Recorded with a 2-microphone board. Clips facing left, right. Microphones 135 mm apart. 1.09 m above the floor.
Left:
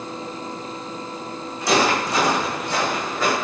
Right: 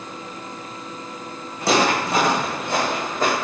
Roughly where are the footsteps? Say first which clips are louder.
Even; right.